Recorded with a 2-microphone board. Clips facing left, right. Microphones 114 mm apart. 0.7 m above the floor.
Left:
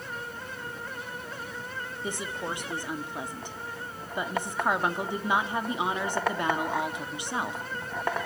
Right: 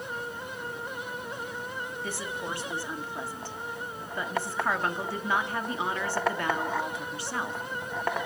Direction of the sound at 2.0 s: 20° left (ahead or behind).